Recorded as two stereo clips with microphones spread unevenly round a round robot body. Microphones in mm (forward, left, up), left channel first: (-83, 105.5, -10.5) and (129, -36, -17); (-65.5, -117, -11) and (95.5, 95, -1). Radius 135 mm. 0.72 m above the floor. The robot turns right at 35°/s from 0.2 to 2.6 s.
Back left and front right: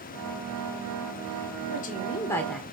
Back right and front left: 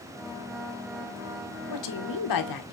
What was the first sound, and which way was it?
A woman speaking, 155° right.